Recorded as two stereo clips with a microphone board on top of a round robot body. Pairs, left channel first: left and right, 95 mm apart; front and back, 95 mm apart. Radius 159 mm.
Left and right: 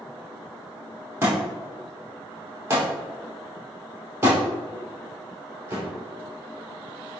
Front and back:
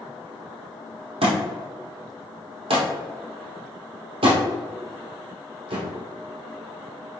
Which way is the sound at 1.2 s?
160° right.